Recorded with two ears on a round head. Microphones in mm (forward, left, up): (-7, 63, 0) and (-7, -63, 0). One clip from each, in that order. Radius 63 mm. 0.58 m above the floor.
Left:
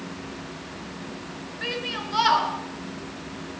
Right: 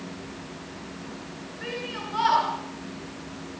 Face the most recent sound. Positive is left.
turn(degrees=75)  # may be behind; listen again after turning